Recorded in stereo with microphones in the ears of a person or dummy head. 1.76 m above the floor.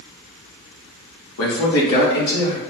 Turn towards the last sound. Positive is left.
turn(degrees=65)  # may be behind; listen again after turning